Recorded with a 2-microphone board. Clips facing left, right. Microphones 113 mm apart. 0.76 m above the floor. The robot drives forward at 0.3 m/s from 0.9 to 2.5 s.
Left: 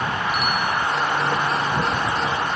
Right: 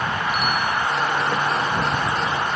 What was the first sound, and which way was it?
A bicycle bell, 80° right.